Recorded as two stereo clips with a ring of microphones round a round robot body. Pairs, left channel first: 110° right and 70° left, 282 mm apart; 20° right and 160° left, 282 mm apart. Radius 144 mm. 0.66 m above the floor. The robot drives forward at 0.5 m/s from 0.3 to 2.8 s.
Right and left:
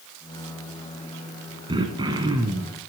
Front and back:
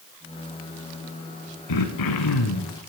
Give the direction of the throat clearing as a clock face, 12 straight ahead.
12 o'clock.